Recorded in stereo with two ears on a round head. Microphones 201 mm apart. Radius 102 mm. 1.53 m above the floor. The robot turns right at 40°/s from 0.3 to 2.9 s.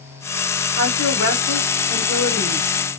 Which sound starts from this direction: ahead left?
A woman speaking, at 0.8 s.